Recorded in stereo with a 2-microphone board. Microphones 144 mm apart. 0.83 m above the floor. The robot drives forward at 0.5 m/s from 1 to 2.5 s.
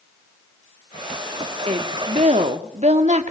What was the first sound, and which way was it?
A woman speaking, 45° right (ahead or behind).